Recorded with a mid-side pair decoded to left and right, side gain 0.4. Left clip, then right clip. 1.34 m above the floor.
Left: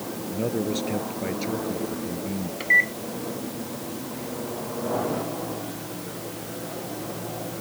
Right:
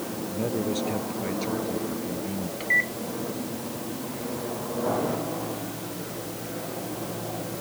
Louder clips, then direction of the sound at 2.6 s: Left 4 dB; 35° left.